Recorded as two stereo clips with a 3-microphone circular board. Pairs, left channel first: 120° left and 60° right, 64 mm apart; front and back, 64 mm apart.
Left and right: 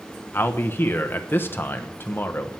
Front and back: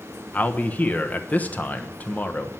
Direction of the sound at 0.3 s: 65° left.